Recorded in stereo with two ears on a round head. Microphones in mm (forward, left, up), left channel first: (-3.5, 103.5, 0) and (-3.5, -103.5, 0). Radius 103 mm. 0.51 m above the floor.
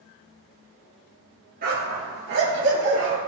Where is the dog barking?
40° right (ahead or behind), 2.5 m; by 3.2 s 60° right (ahead or behind), 3.5 m.